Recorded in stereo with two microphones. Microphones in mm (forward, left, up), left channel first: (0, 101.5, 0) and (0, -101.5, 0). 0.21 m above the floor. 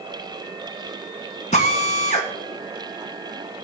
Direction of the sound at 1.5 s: 35° left (ahead or behind).